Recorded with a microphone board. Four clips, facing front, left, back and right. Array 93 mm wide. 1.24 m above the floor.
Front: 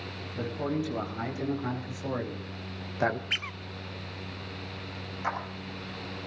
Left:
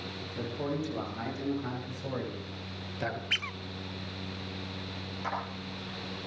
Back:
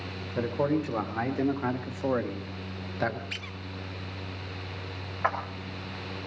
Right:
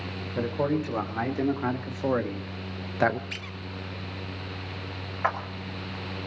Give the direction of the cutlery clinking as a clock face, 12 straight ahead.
No cutlery clinking in this recording.